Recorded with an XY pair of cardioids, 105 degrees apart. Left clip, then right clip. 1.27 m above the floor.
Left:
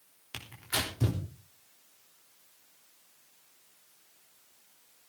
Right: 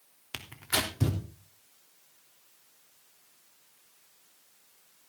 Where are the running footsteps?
I don't hear running footsteps.